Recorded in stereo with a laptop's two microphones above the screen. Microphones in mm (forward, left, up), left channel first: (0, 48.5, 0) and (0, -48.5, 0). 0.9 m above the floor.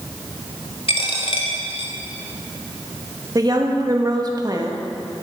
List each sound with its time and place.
0.9 s a dropped coin: 75° left (ahead or behind), 1.5 m
3.4 s a woman speaking: 45° right (ahead or behind), 1.2 m